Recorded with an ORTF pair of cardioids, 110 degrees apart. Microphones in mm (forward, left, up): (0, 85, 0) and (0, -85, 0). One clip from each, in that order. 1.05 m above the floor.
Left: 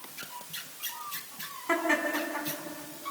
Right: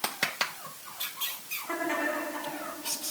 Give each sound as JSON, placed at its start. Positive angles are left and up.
{"t": 1.7, "sound": "laughter", "azimuth_deg": 40, "distance_m": 7.5}